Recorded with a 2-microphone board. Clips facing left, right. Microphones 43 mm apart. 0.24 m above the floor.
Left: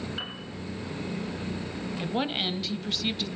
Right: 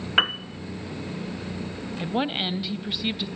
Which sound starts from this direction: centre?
A woman speaking, at 2.0 s.